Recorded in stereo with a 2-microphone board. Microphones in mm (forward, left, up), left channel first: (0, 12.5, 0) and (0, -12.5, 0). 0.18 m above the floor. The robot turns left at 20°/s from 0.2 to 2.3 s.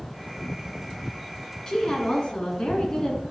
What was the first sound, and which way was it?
A woman speaking, 25° left (ahead or behind).